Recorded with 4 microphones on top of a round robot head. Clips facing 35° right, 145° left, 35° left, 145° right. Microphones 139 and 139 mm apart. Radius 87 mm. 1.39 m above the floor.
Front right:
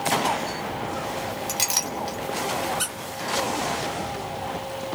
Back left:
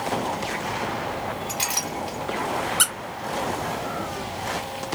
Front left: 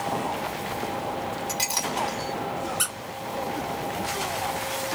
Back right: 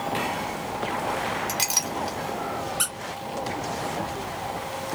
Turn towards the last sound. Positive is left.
turn(degrees=125)